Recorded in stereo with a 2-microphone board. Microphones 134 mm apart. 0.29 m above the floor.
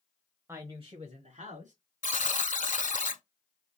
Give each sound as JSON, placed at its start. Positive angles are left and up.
{"t": 0.5, "sound": "a woman speaking", "side_deg": -20, "distance_m": 0.9}
{"t": 2.0, "sound": "a buzzer", "side_deg": 75, "distance_m": 0.6}